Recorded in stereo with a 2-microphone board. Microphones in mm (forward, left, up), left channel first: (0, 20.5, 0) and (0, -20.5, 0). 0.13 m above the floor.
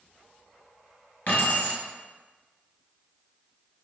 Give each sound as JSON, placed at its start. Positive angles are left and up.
{"t": 1.3, "sound": "keys jangling", "side_deg": 50, "distance_m": 1.4}